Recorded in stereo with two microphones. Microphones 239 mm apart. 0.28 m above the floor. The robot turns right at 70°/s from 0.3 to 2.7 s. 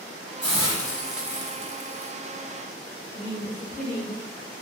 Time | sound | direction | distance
0.4 | a hiss | 130° left | 0.9 m
3.1 | a woman speaking | 10° right (ahead or behind) | 1.7 m